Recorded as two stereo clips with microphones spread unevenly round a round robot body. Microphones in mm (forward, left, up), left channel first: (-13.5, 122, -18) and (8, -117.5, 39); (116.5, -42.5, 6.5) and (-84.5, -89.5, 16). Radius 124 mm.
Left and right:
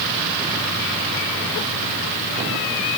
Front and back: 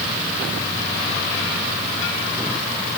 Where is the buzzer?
I don't hear a buzzer.